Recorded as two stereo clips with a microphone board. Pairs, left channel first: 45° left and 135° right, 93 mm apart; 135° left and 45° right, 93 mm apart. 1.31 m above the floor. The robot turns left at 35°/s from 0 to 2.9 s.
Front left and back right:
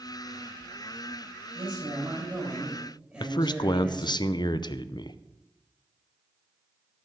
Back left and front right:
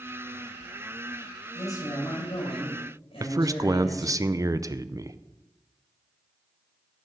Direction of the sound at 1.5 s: 165° right.